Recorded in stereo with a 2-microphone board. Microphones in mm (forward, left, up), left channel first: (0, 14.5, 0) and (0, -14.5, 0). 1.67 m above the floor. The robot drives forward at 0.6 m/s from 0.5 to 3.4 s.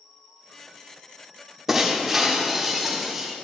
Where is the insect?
5° left (ahead or behind), 2 m; by 3.5 s 20° left (ahead or behind), 0.6 m.